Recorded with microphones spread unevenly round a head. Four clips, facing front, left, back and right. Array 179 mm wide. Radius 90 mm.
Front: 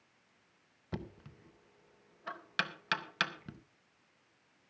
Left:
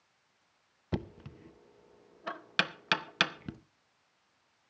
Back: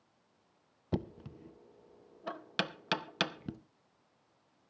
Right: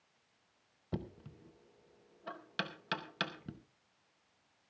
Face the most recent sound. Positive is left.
turn(degrees=145)